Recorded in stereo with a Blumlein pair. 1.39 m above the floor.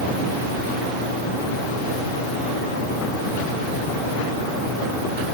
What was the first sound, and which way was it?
Only background noise.